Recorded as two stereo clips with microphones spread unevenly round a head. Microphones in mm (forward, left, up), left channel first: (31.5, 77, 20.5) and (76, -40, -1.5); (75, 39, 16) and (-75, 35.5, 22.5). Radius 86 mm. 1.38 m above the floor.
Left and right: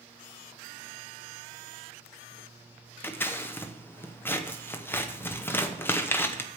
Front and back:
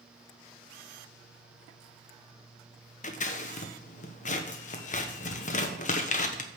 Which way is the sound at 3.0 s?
35° left.